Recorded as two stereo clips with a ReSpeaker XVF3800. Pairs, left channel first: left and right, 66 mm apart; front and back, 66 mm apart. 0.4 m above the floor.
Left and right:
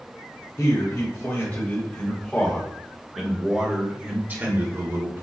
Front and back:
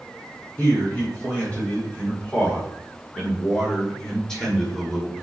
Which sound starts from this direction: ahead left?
A man speaking, at 0.6 s.